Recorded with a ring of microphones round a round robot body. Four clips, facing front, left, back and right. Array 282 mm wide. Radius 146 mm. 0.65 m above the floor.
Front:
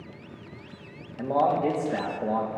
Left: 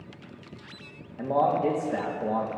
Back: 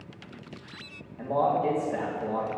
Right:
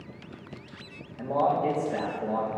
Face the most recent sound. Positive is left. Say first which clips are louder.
# left 1 dB, front 2 dB
turn(degrees=40)